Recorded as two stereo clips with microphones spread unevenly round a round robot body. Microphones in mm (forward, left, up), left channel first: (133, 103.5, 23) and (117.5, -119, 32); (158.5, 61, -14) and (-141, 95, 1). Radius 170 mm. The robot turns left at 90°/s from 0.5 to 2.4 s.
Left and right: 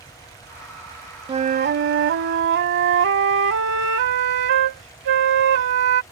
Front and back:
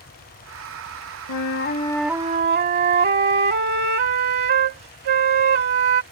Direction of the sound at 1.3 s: 30° right.